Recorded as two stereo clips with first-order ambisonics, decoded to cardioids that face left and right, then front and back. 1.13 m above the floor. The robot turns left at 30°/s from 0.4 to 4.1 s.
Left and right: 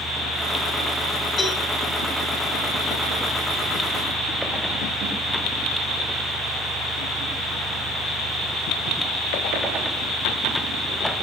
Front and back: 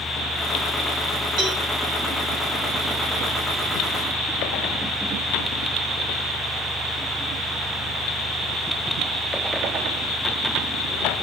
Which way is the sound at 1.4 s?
165° left.